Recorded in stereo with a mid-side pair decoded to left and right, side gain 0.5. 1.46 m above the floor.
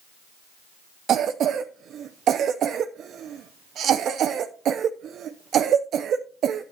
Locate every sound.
1.1 s a cough: 60° right, 0.6 m